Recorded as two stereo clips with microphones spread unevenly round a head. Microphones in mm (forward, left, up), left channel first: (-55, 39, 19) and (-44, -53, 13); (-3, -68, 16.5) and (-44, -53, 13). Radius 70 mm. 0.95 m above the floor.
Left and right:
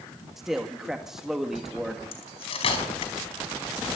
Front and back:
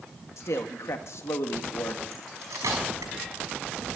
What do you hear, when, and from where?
0.4 s a man speaking: straight ahead, 1.8 m
2.1 s cutlery clinking: 110° left, 5 m